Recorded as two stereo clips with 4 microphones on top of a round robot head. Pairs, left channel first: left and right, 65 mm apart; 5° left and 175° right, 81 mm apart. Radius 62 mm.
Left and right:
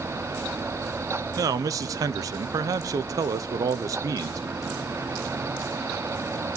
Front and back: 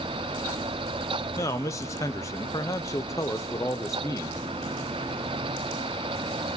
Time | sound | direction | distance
1.4 | a man speaking | 60° right | 0.7 m